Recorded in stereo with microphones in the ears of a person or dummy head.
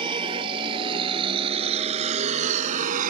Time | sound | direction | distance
0.0 | a vehicle | 25° right (ahead or behind) | ?